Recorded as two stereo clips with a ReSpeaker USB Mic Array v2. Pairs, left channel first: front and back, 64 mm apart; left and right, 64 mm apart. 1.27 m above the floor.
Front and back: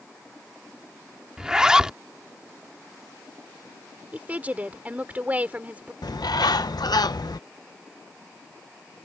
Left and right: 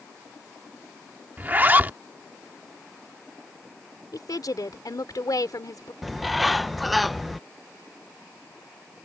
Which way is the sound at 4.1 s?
110° left.